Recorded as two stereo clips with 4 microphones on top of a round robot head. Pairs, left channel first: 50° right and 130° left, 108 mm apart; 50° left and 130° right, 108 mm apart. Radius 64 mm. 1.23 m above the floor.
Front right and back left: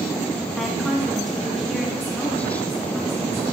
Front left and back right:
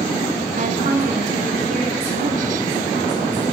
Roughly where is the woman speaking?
Behind right.